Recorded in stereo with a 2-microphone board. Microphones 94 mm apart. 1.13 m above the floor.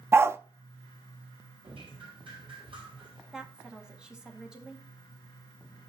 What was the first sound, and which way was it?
A dog barking, 25° right (ahead or behind).